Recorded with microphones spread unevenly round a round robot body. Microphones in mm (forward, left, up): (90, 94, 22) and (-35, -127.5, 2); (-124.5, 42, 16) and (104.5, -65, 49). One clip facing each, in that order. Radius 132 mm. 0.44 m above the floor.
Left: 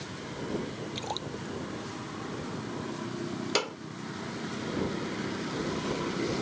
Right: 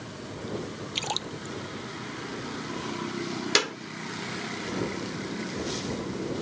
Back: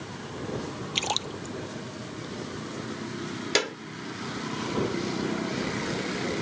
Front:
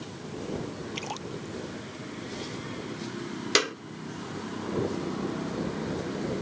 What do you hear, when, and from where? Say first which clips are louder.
0.9 s a splash: even, back 1 dB; 170° right
3.5 s a clap: right 3 dB, even; 100° right